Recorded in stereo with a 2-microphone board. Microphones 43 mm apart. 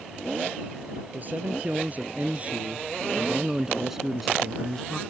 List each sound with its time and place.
1.1 s a man speaking: 40° right (ahead or behind); by 5.0 s 15° left (ahead or behind)